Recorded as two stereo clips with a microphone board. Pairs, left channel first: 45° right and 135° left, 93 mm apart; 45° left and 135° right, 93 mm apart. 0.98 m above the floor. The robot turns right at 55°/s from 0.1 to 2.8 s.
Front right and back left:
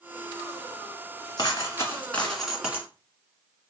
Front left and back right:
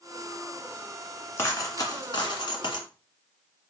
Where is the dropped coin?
15° right, 1.4 m; by 2.9 s 65° left, 1.4 m.